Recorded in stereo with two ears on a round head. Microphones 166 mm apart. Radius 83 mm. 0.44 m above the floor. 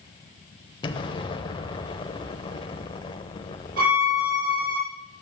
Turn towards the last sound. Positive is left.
turn(degrees=-50)  # may be behind; listen again after turning